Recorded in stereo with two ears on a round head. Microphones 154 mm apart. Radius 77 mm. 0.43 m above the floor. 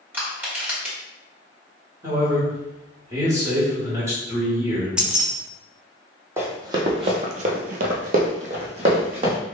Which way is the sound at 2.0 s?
20° right (ahead or behind).